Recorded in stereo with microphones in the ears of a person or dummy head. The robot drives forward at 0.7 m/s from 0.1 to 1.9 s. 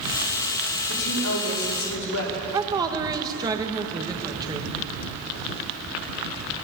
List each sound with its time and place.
0.9 s a woman speaking: 90° left, 4.5 m; by 2.3 s 80° left, 5 m
2.5 s a woman speaking: 25° right (ahead or behind), 1.7 m